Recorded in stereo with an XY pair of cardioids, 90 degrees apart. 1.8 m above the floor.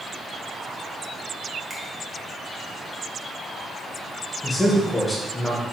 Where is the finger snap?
25° right, 1.5 m.